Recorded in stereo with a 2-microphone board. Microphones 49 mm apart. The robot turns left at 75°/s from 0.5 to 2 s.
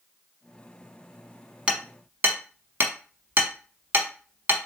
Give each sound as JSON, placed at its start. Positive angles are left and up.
{"t": 1.7, "sound": "hammering", "side_deg": -25, "distance_m": 0.8}